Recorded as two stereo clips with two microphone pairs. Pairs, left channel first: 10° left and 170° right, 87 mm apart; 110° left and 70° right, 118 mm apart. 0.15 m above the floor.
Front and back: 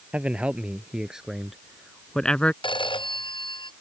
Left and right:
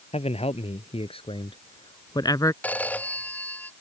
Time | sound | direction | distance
0.1 | a man speaking | 115° left | ?
2.6 | a phone ringing | 30° left | ?